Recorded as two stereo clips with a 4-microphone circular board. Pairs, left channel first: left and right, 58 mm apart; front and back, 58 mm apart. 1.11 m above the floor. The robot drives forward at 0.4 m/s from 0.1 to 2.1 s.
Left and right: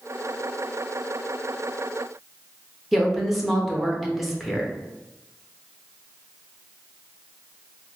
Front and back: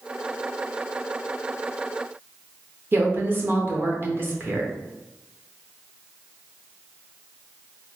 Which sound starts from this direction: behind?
A woman speaking, at 2.9 s.